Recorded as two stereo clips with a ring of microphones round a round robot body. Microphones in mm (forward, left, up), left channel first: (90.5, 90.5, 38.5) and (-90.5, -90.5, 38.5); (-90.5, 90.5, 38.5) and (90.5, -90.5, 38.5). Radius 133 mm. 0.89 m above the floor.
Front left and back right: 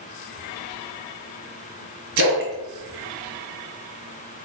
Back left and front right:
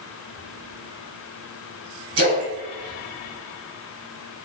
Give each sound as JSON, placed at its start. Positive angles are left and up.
{"t": 2.2, "sound": "a splash", "azimuth_deg": -110, "distance_m": 1.0}